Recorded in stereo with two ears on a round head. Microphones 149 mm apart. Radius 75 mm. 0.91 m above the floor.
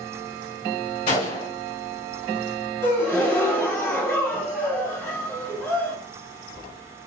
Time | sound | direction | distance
1.1 | a gunshot | 45° left (ahead or behind) | 1.6 m
2.8 | a gasp | 15° left (ahead or behind) | 1.2 m